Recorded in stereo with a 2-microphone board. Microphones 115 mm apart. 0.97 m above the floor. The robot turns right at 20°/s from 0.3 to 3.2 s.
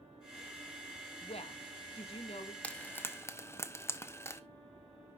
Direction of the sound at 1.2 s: 55° left (ahead or behind).